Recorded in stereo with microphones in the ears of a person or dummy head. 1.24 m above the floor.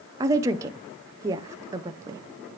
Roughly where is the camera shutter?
I don't hear a camera shutter.